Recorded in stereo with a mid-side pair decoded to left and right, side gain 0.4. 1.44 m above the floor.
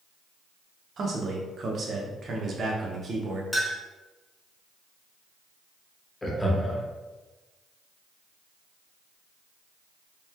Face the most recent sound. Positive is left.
turn(degrees=15)